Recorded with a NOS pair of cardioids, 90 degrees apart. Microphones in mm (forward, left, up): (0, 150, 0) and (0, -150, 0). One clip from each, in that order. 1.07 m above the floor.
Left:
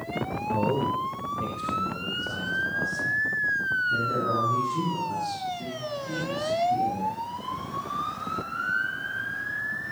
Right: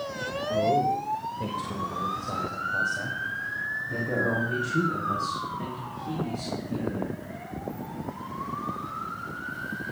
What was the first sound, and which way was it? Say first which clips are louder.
A man speaking: right 3 dB; 15° left.